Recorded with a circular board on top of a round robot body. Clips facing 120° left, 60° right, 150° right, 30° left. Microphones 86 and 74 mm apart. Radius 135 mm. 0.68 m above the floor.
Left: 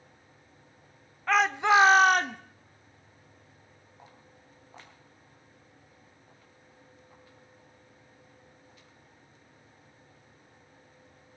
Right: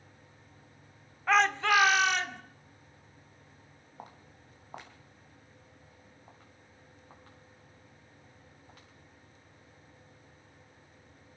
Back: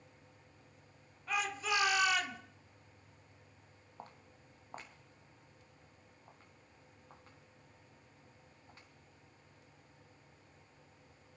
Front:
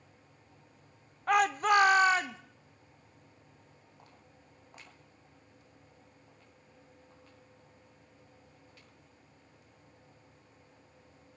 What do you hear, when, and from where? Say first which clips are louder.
1.3 s a shout: left 2 dB, front 11 dB; 25° left, 1.1 m; by 2.4 s 90° left, 1.4 m
4.0 s footsteps: right 6 dB, back 8 dB; 100° right, 2 m; by 8.9 s 90° right, 7 m